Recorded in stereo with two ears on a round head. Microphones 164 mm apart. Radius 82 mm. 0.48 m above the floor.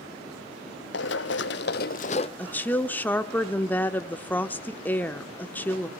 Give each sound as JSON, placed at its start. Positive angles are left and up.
{"t": 0.9, "sound": "running footsteps", "side_deg": 70, "distance_m": 1.4}
{"t": 2.4, "sound": "a woman speaking", "side_deg": 10, "distance_m": 0.9}